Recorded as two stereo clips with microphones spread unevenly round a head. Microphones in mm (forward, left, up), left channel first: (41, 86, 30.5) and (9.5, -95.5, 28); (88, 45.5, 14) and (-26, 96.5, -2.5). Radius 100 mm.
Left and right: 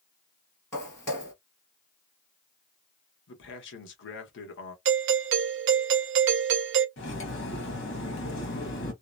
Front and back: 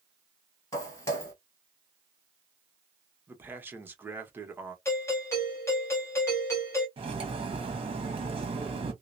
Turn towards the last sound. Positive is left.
turn(degrees=110)